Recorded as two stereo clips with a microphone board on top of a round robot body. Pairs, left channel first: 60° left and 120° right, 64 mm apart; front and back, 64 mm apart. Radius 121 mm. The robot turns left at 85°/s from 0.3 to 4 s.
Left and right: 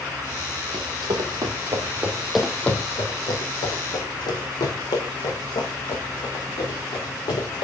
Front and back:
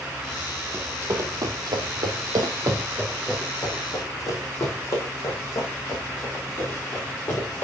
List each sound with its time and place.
0.7 s running footsteps: 115° right, 1.4 m; by 7.6 s 60° left, 4 m